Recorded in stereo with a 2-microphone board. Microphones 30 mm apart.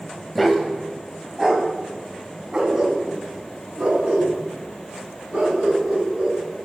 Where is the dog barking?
Centre (ahead or behind), 1.5 m; by 6.4 s 40° right (ahead or behind), 4.5 m.